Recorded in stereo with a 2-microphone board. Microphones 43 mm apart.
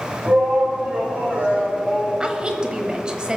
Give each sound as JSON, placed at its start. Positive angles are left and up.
{"t": 0.2, "sound": "a shout", "side_deg": -40, "distance_m": 2.0}
{"t": 2.2, "sound": "a woman speaking", "side_deg": -20, "distance_m": 1.1}